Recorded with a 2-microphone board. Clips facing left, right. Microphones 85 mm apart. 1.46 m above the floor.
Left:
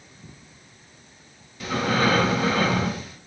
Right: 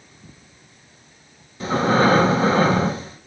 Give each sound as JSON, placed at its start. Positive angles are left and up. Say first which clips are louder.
{"t": 1.6, "sound": "breathing", "louder": "right 5 dB", "side_deg": -30, "distance_m": 0.9}